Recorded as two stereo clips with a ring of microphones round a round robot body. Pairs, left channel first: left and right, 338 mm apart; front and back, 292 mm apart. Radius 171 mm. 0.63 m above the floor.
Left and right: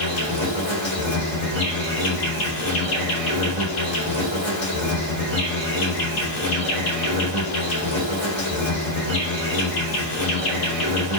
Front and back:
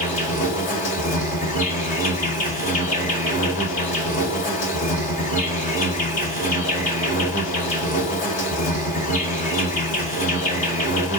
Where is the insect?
55° left, 2.5 m.